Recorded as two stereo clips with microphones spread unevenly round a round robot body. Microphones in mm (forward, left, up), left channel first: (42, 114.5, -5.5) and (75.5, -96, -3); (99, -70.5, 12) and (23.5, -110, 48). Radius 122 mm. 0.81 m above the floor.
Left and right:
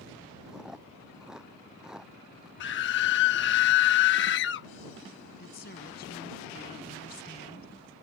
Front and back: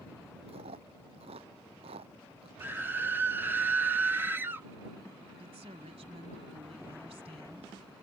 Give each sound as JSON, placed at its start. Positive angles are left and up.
{"t": 0.5, "sound": "chewing", "azimuth_deg": -170}
{"t": 2.6, "sound": "a scream", "azimuth_deg": 120}
{"t": 5.4, "sound": "a woman speaking", "azimuth_deg": 155}